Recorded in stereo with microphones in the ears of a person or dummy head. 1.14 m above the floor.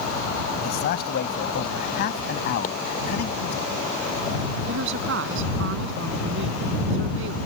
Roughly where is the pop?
Left.